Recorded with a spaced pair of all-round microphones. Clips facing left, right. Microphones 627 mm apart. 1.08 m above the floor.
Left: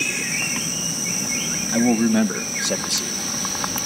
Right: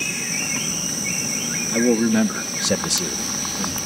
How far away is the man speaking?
About 1.4 m.